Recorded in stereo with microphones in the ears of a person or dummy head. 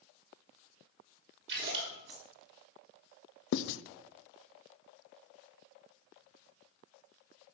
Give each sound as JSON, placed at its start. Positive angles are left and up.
{"t": 1.5, "sound": "a splash", "side_deg": -60, "distance_m": 5.0}
{"t": 3.5, "sound": "writing", "side_deg": 70, "distance_m": 0.5}